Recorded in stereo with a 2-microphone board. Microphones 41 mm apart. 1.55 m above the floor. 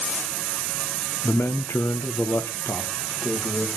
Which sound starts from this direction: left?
A man speaking, at 1.2 s.